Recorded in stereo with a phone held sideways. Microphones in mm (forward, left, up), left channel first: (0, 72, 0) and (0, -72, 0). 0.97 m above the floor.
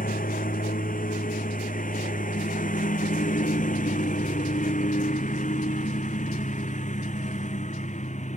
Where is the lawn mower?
70° left (ahead or behind); by 8.4 s 55° left (ahead or behind).